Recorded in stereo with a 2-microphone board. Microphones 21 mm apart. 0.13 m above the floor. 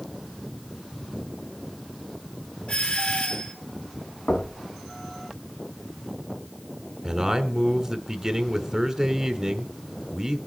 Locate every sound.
2.7 s a doorbell: 65° left (ahead or behind), 4.5 m
4.3 s knocking: 55° left (ahead or behind), 3 m
7.0 s a man speaking: 15° right (ahead or behind), 1.3 m